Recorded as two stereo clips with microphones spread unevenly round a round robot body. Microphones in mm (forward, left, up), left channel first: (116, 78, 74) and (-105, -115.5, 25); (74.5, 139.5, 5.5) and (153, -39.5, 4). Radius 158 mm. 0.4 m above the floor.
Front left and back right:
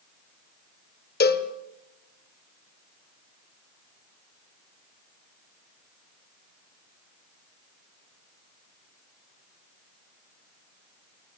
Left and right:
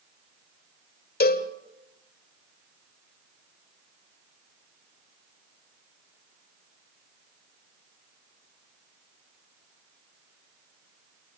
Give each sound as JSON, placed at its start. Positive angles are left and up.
{"t": 1.2, "sound": "a cowbell", "azimuth_deg": 100, "distance_m": 1.6}